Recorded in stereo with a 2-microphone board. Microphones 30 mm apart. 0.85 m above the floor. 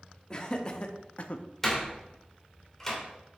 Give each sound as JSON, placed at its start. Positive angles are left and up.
{"t": 0.3, "sound": "laughter", "side_deg": 30, "distance_m": 1.4}
{"t": 1.6, "sound": "a door slam", "side_deg": 10, "distance_m": 2.0}